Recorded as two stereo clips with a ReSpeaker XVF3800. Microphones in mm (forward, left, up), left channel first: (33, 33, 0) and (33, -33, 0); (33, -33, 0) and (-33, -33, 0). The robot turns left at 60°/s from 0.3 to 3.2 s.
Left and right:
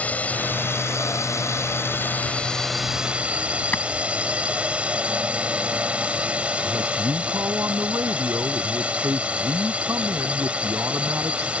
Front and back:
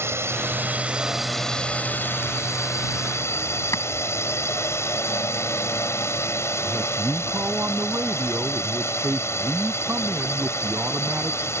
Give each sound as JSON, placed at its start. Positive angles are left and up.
{"t": 0.0, "sound": "a drone", "azimuth_deg": 150}
{"t": 3.7, "sound": "a clap", "azimuth_deg": 30}
{"t": 6.6, "sound": "a man speaking", "azimuth_deg": -130}